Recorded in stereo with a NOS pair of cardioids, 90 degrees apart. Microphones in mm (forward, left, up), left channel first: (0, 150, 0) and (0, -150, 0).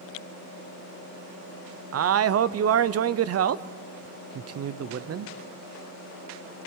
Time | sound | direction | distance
1.9 | a man speaking | 55° right | 1.0 m